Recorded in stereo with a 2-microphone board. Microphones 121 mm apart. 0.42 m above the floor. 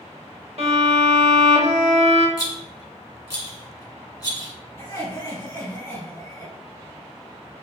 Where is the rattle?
30° left (ahead or behind), 1.7 m.